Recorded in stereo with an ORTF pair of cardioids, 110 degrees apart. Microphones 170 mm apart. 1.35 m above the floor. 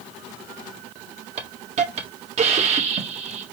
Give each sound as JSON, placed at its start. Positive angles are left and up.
{"t": 1.4, "sound": "a hiss", "azimuth_deg": -45, "distance_m": 1.8}